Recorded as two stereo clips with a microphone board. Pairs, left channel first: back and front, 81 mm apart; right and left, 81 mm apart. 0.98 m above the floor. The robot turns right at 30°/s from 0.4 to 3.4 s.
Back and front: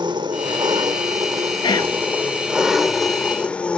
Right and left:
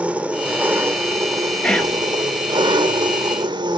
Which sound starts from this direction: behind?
Whispering, at 1.6 s.